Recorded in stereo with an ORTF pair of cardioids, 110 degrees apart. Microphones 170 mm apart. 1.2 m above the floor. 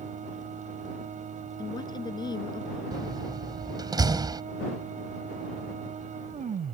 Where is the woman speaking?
25° left.